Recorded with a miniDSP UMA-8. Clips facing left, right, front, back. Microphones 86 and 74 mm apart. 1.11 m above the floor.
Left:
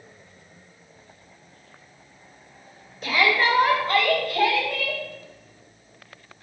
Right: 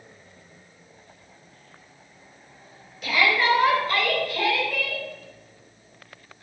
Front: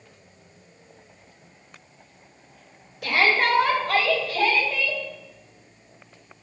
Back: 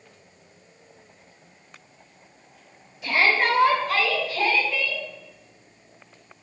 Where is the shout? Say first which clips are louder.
Even, even; 35° left, 4 m; by 5.0 s 50° left, 6 m.